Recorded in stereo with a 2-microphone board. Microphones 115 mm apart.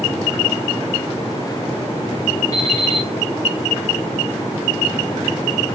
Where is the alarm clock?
30° left (ahead or behind), 5 m.